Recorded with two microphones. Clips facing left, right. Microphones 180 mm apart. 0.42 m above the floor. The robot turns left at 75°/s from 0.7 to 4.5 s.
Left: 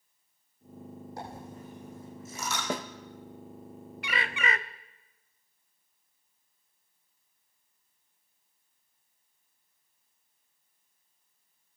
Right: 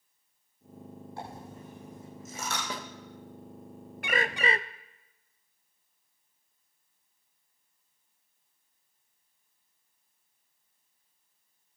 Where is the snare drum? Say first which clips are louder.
Left 6 dB; 50° left (ahead or behind), 0.9 m; by 2.9 s 45° left (ahead or behind), 0.9 m.